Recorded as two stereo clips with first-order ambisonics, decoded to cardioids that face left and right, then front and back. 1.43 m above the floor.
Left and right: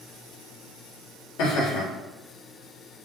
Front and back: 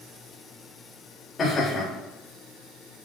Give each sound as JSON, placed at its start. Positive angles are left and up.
{"t": 1.4, "sound": "laughter", "azimuth_deg": 70, "distance_m": 3.0}